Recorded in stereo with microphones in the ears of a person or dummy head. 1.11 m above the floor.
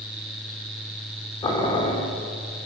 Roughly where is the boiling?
Left.